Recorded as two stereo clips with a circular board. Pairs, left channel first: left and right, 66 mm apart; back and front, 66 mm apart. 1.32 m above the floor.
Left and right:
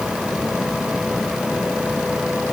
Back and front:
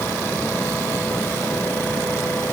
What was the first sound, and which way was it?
Only background noise.